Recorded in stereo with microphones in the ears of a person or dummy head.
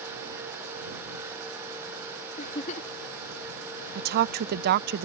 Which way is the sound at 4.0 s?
55° right (ahead or behind).